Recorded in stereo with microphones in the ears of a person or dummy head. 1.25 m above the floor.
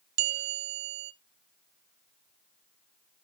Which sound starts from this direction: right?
A bell, at 0.2 s.